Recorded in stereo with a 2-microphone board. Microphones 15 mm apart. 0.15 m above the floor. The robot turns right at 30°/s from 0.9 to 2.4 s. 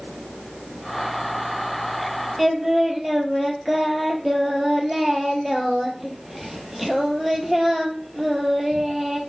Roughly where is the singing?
Centre.